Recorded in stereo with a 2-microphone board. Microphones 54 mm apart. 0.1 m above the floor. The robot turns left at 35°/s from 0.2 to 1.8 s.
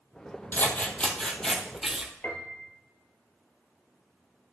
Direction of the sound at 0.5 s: 40° left.